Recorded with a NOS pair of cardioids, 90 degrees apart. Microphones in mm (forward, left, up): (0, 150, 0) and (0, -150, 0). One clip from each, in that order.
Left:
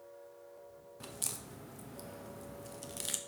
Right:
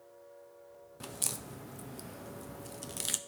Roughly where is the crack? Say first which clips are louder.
Right 4 dB; ahead.